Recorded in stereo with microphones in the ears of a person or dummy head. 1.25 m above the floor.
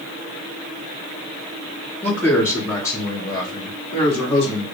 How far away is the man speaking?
About 2.5 m.